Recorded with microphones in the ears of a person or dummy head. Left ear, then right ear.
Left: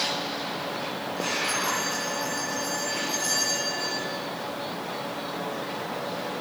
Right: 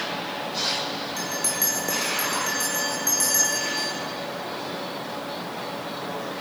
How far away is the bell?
About 4 m.